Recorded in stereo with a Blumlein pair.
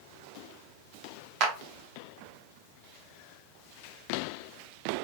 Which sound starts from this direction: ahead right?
A clap, at 1.4 s.